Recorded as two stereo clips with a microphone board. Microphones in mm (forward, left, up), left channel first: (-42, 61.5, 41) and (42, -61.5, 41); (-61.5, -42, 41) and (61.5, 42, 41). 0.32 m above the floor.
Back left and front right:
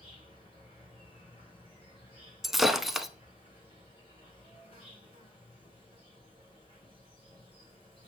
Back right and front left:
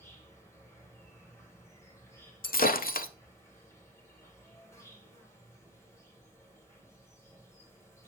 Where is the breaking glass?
145° right, 0.5 m.